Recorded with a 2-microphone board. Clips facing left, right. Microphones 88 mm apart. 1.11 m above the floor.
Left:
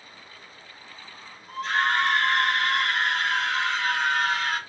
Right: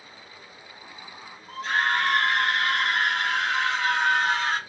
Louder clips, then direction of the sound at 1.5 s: Even; 10° right (ahead or behind).